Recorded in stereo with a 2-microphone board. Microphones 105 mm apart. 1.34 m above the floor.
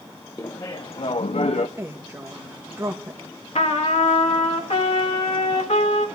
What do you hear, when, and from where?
0.4 s laughter: 30° left (ahead or behind), 0.6 m; by 1.7 s 75° left (ahead or behind), 0.5 m
1.8 s a woman speaking: 25° right (ahead or behind), 1.7 m
3.5 s a trumpet: 80° left, 1.6 m